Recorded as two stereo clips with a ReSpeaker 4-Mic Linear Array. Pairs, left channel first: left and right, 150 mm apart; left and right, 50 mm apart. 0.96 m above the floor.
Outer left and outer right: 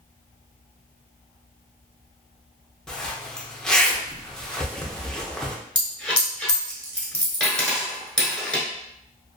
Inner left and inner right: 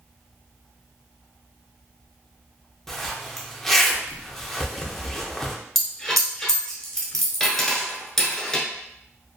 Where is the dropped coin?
10° left (ahead or behind), 0.9 m.